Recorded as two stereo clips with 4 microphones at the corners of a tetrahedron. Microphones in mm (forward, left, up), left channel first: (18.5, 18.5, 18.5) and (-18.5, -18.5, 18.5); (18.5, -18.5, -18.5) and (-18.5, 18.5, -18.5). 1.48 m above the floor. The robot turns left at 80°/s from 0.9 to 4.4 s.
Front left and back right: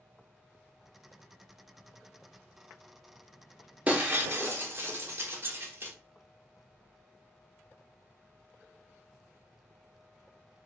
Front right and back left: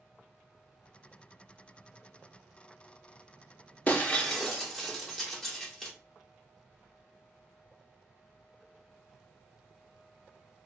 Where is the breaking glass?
90° right, 1.1 m; by 5.9 s 135° right, 1.1 m.